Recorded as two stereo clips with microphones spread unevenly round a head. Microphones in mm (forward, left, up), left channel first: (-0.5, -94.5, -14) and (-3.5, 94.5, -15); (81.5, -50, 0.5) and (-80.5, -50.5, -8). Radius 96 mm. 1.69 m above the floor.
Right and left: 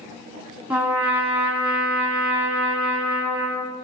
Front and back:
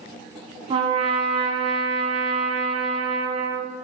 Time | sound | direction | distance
0.7 | a trumpet | 165° left | 1.3 m